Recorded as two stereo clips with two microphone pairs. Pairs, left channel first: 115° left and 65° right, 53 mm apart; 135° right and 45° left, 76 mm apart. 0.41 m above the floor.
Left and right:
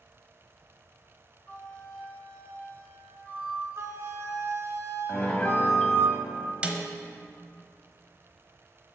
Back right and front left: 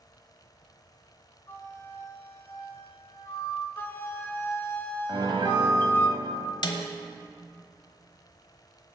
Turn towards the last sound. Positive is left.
turn(degrees=-135)